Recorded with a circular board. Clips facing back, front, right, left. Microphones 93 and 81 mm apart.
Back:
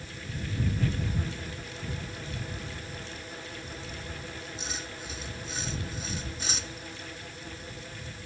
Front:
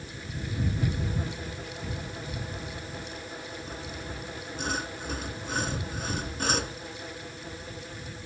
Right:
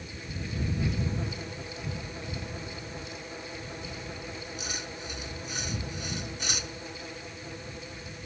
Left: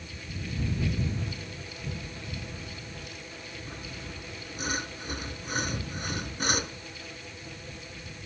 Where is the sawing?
40° left.